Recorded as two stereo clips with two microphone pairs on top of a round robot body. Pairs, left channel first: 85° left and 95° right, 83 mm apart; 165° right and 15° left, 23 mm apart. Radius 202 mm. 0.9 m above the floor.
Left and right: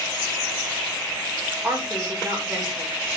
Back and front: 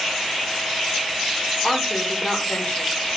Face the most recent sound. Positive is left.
turn(degrees=-160)